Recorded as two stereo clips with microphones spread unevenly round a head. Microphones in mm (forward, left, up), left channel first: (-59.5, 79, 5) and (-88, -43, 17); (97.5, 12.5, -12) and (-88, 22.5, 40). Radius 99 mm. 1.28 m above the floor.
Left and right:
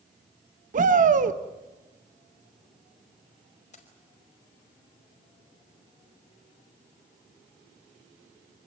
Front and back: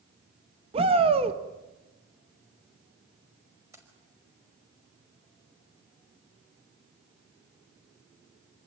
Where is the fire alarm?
No fire alarm in this recording.